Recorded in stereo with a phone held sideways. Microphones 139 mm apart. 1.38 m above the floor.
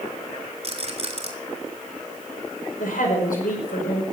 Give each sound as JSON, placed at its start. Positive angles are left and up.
{"t": 0.6, "sound": "a rattle", "side_deg": -50, "distance_m": 3.0}
{"t": 2.8, "sound": "a woman speaking", "side_deg": 80, "distance_m": 5.0}